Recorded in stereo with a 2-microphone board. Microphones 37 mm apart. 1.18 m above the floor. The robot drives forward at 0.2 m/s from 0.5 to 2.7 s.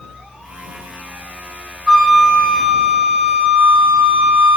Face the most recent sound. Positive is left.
turn(degrees=-15)  # may be behind; listen again after turning